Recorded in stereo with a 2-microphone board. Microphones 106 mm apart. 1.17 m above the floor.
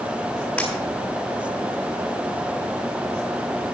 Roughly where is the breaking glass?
Centre.